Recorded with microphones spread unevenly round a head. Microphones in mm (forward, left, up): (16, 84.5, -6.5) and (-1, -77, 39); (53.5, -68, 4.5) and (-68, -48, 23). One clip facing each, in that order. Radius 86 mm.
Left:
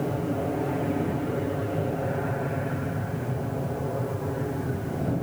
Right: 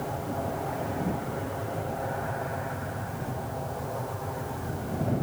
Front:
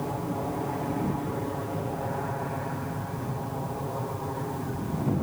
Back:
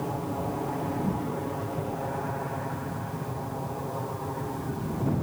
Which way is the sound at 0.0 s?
80° left.